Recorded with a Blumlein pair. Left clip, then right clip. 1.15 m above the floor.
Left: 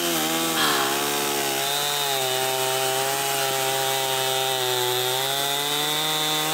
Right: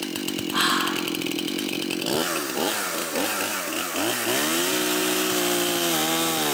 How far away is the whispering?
About 1.3 m.